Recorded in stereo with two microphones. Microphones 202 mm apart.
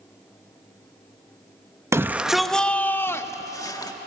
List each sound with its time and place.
1.9 s a shout: 15° right (ahead or behind), 0.6 m; by 3.9 s 20° left (ahead or behind), 1.4 m